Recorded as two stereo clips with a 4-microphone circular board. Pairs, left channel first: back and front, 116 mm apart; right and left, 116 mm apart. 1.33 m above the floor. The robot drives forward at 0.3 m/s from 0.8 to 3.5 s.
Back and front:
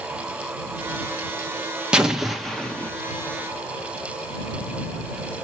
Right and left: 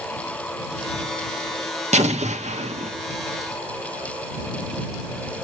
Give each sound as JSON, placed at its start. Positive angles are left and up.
{"t": 1.9, "sound": "an explosion", "azimuth_deg": 80, "distance_m": 1.0}